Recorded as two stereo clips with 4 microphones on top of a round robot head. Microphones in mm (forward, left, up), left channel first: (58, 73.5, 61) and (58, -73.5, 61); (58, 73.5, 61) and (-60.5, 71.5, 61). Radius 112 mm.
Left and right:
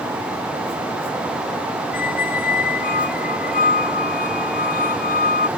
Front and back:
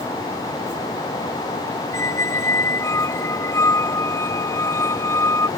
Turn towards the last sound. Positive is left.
turn(degrees=65)